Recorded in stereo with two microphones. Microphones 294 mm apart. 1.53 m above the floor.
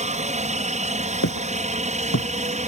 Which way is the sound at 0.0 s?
25° right (ahead or behind).